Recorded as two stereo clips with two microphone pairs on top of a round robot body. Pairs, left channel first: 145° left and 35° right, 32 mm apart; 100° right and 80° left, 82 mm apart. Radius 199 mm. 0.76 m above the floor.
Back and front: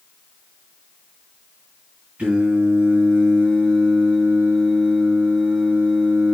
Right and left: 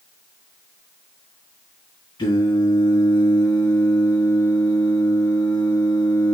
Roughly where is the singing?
Right.